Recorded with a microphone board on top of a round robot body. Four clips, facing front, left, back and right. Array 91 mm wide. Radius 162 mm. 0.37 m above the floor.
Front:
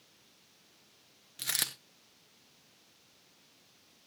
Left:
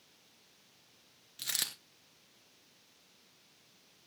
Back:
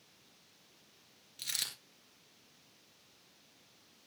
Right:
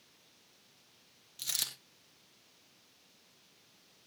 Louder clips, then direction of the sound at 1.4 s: Left 3 dB, front 7 dB; 20° left.